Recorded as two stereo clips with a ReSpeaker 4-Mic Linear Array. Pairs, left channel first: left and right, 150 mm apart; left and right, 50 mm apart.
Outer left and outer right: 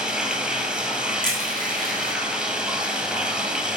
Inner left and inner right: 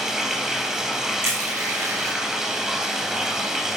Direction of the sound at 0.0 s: 5° right (ahead or behind).